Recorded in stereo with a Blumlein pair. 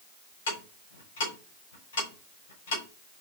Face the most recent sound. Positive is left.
turn(degrees=60)